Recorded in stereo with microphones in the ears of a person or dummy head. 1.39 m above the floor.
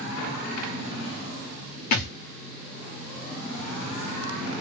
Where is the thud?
55° left (ahead or behind), 1.3 m.